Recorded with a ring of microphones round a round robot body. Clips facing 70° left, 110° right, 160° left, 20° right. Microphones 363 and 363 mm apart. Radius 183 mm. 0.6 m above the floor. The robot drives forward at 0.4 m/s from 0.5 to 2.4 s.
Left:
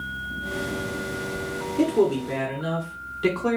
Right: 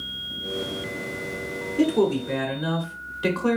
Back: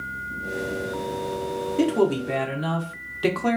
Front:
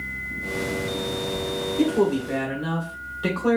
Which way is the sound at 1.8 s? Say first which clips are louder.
Even, even; 160° left.